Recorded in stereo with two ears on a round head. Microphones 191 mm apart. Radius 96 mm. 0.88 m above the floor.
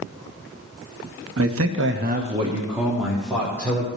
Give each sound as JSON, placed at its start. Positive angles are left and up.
{"t": 1.4, "sound": "a man speaking", "side_deg": -70, "distance_m": 1.1}